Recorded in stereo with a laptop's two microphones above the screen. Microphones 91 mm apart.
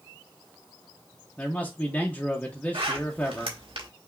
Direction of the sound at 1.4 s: 15° left (ahead or behind).